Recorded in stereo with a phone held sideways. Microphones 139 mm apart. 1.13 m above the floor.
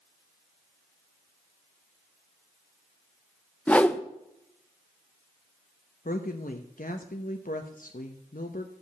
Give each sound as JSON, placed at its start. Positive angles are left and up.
{"t": 3.7, "sound": "a whoosh", "side_deg": 10, "distance_m": 0.7}
{"t": 6.0, "sound": "a woman speaking", "side_deg": 85, "distance_m": 1.0}